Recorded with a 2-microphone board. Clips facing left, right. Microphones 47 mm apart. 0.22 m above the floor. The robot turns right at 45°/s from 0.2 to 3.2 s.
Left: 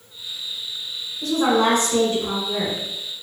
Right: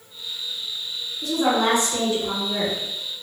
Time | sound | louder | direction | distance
1.2 | a woman speaking | left 2 dB | 80° left | 1.8 m